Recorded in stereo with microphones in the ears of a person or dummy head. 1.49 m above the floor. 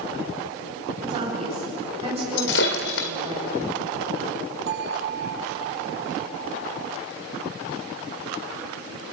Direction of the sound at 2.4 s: 60° left (ahead or behind).